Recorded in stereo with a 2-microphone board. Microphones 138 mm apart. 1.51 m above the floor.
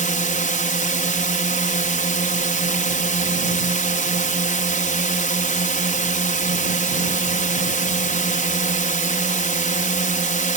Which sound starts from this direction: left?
A drone, at 0.0 s.